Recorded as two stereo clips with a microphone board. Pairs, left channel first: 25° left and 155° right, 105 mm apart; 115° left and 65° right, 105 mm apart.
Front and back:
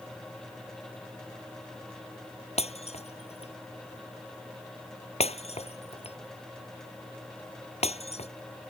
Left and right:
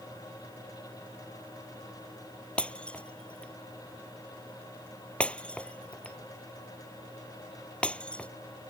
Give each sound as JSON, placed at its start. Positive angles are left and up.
{"t": 2.6, "sound": "breaking glass", "azimuth_deg": 35}